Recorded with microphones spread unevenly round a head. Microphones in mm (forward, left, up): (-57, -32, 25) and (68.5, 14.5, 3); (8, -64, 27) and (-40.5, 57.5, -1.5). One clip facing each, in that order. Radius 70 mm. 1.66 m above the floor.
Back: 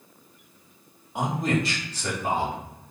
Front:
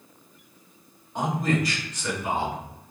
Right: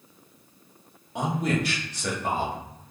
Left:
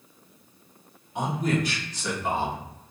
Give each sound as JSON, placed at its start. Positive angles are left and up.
{"t": 1.1, "sound": "a man speaking", "azimuth_deg": -80, "distance_m": 1.1}